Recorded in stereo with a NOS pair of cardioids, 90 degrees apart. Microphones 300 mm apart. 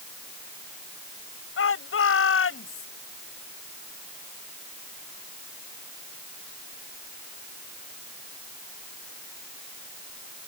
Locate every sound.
1.6 s a shout: 45° left